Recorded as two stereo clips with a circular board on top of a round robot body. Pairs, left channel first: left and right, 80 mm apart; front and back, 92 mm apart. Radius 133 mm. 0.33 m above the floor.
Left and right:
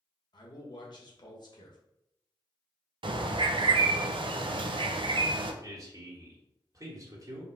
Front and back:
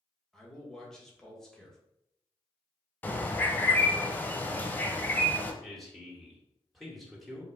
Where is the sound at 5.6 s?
90° right, 1.7 m.